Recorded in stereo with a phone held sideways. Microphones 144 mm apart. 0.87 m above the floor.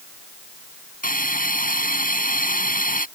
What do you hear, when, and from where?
1.0 s a hiss: 75° left (ahead or behind)